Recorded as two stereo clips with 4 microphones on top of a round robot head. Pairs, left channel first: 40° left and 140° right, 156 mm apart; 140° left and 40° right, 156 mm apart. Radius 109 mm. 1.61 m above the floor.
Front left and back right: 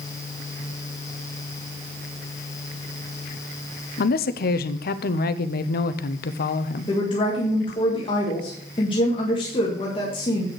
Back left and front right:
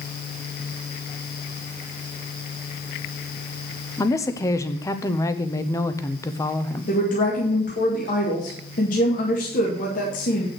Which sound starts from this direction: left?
A woman speaking, at 6.9 s.